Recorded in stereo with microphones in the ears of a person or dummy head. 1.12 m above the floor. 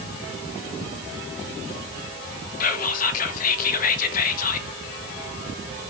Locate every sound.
2.6 s whispering: 50° left (ahead or behind), 1.0 m